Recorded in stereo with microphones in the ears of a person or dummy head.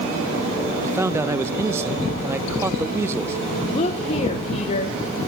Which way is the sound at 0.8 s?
10° right (ahead or behind).